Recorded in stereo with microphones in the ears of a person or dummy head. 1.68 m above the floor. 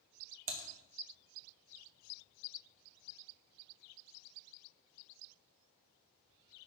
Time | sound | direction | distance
0.5 | typing on a keyboard | 40° right (ahead or behind) | 0.6 m